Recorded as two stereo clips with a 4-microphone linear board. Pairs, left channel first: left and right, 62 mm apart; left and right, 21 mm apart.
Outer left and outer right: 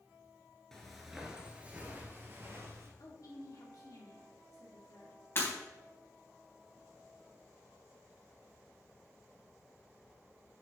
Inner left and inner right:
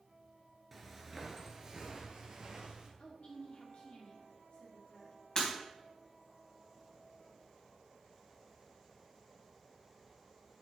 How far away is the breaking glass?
About 3.5 m.